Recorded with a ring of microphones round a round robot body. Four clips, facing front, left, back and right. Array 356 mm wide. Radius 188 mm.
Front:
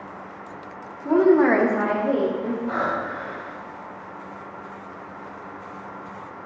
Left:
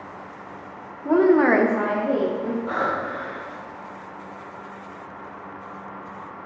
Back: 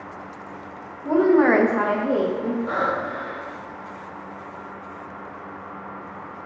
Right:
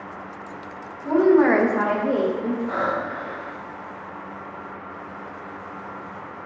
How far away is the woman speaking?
About 0.9 m.